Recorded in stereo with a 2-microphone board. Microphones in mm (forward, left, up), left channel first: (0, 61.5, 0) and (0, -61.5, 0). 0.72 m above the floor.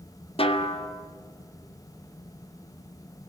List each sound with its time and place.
0.4 s a snare drum: 50° left (ahead or behind), 1.5 m